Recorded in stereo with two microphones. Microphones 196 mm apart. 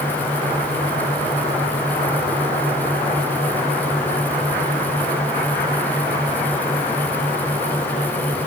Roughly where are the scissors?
I don't hear scissors.